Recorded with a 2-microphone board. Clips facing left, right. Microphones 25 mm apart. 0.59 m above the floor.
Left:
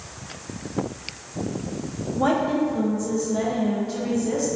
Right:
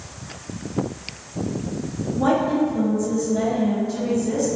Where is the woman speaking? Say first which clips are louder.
Right 2 dB; 15° left (ahead or behind), 0.6 m.